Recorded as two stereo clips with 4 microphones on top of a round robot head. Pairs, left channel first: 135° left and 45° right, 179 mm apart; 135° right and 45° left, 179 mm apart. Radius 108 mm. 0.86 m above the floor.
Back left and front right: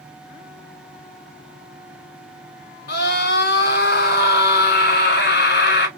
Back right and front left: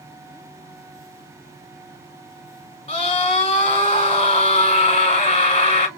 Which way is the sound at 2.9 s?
165° left.